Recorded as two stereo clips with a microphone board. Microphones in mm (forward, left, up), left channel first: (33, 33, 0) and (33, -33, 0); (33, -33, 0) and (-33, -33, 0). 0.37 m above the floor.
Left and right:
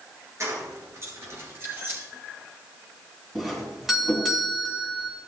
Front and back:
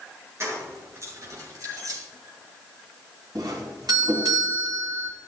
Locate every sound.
0.4 s keys jangling: 135° right, 4.5 m; by 2.0 s 150° right, 3.5 m
3.4 s a doorbell: 175° right, 3.5 m